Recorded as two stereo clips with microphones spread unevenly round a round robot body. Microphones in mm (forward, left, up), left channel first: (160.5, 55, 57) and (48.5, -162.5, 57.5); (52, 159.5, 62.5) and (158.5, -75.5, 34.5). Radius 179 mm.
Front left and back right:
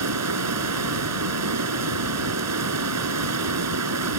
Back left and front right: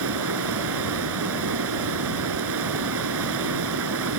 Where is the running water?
110° right.